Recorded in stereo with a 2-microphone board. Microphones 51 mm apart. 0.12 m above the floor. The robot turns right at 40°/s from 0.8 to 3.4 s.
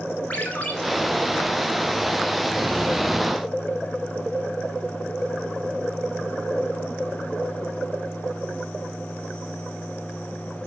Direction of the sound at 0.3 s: 30° left (ahead or behind).